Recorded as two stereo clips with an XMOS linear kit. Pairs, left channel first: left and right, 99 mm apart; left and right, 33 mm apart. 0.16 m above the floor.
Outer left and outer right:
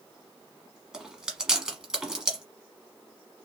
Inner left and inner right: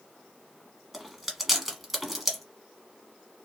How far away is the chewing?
About 1.2 m.